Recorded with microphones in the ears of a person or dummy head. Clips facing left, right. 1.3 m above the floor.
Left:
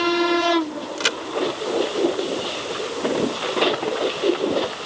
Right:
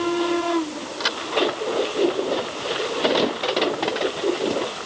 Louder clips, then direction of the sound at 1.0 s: Left 3 dB; 40° left (ahead or behind).